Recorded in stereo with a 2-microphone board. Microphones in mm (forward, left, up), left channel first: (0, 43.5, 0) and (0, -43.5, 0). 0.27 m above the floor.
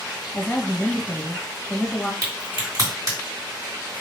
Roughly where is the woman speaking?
Centre.